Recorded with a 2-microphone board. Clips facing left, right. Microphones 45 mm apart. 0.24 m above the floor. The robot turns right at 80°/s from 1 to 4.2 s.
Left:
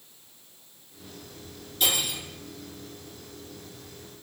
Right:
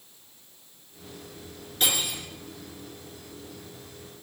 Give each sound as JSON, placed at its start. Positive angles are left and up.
{"t": 1.8, "sound": "cutlery clinking", "azimuth_deg": -50, "distance_m": 1.9}